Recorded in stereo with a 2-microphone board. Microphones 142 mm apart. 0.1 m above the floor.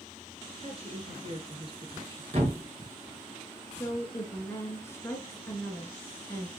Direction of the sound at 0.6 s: 45° right (ahead or behind).